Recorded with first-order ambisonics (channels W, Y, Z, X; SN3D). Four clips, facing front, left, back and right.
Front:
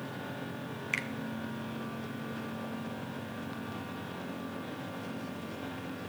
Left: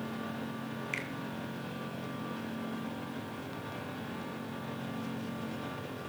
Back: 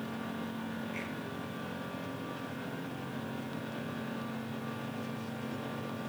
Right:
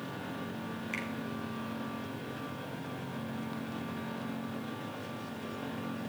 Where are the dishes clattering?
I don't hear dishes clattering.